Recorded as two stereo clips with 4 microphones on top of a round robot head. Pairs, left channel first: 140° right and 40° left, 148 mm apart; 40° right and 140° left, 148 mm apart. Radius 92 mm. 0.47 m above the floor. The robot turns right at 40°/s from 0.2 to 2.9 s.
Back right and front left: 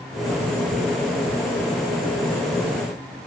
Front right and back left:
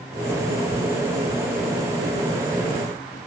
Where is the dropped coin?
I don't hear a dropped coin.